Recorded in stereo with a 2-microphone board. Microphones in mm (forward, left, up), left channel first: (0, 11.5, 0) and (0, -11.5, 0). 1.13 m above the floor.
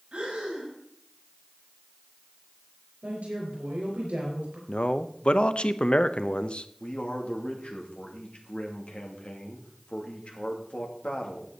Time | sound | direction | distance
0.1 | breathing | 50° right (ahead or behind) | 4.5 m
3.0 | a woman speaking | 85° right | 4.5 m
4.7 | a man speaking | 55° left (ahead or behind) | 0.7 m
6.8 | a man speaking | 55° left (ahead or behind) | 2.5 m